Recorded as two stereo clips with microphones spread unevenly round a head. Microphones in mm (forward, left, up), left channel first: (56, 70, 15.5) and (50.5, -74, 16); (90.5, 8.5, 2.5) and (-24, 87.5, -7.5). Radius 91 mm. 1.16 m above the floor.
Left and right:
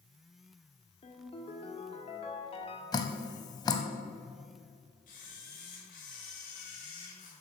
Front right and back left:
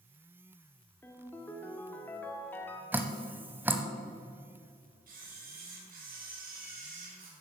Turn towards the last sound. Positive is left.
turn(degrees=135)